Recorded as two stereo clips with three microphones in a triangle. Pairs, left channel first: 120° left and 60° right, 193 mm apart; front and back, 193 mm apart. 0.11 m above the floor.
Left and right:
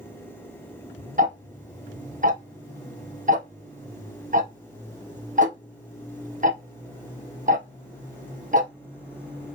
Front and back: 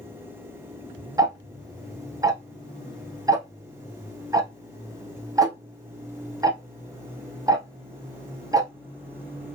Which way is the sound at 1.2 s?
110° right.